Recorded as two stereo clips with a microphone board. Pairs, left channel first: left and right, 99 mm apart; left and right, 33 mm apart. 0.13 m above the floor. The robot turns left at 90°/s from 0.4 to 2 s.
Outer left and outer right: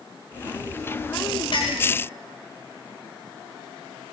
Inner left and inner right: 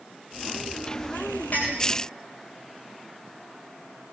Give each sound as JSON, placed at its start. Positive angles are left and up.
{"t": 1.5, "sound": "a clink", "side_deg": 55, "distance_m": 8.0}